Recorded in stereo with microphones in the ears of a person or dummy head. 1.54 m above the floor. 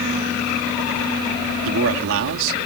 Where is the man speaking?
70° right (ahead or behind).